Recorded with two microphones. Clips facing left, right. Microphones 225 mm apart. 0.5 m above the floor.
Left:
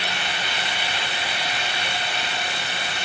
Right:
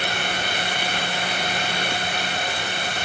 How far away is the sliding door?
No sliding door in this recording.